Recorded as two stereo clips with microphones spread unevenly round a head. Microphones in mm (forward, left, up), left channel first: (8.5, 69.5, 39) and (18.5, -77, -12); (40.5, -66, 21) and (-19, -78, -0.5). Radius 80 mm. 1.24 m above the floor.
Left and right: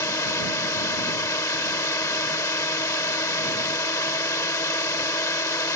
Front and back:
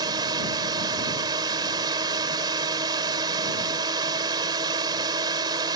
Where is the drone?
165° left.